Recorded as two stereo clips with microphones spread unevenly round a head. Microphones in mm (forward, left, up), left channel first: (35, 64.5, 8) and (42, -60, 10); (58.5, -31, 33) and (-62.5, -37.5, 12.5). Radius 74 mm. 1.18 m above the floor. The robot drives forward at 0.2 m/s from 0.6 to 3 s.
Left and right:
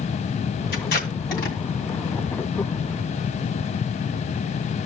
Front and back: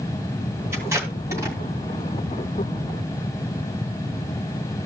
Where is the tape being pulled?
105° left, 3 m; by 1.6 s 110° left, 3 m.